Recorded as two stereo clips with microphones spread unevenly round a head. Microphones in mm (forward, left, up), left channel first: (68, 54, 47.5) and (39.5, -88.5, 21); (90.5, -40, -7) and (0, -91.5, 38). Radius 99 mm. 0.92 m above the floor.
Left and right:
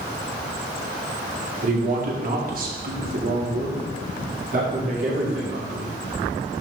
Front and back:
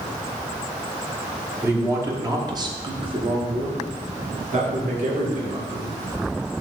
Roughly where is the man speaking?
Right.